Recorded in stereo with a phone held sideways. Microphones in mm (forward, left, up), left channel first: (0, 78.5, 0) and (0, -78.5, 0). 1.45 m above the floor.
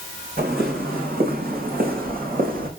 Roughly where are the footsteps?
Right.